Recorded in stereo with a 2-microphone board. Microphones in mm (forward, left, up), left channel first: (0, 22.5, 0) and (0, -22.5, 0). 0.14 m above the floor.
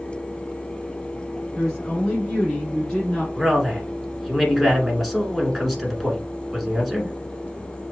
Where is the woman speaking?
20° left (ahead or behind), 1.7 m.